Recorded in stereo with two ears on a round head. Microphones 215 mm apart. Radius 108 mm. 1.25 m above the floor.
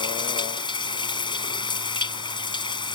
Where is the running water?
20° left (ahead or behind).